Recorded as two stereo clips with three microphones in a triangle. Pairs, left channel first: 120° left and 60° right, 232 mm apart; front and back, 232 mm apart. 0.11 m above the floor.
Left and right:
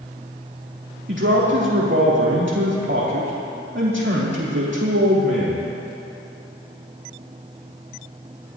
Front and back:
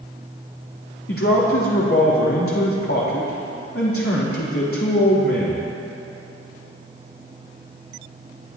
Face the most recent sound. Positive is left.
turn(degrees=-25)